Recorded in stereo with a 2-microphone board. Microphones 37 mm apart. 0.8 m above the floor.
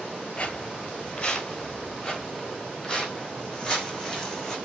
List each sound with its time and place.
0.4 s footsteps: 35° left (ahead or behind), 1.1 m; by 4.6 s 10° left (ahead or behind), 3 m